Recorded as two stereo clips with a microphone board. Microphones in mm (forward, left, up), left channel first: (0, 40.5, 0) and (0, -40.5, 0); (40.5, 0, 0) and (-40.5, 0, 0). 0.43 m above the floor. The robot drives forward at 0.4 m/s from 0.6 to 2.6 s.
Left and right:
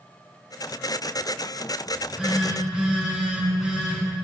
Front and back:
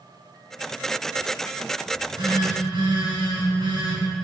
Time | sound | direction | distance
1.9 | a phone buzzing | 165° right | 4 m